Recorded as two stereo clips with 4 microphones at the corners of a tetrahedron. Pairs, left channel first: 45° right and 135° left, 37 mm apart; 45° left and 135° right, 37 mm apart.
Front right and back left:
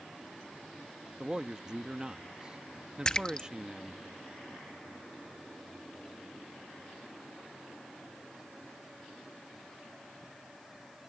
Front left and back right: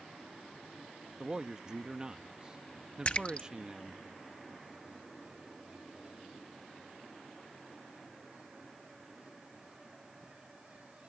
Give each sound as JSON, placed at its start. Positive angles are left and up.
{"t": 1.2, "sound": "a man speaking", "azimuth_deg": -175}
{"t": 3.0, "sound": "a splash", "azimuth_deg": 10}